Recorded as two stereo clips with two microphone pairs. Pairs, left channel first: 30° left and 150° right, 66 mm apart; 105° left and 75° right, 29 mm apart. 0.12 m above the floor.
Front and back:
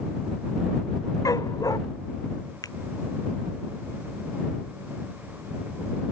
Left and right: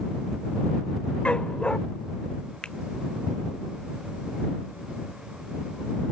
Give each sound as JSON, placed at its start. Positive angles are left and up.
{"t": 1.2, "sound": "a dog barking", "azimuth_deg": 55}
{"t": 2.6, "sound": "a finger snap", "azimuth_deg": 50}